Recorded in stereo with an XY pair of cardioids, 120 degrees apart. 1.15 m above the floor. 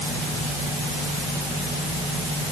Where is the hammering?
I don't hear hammering.